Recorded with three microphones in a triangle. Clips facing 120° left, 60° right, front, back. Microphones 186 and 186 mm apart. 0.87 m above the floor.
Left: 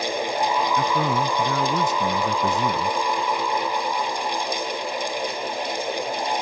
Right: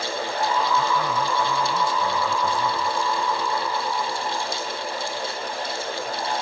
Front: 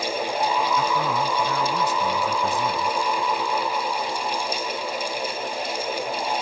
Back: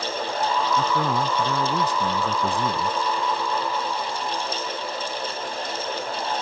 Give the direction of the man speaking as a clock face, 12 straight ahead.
8 o'clock.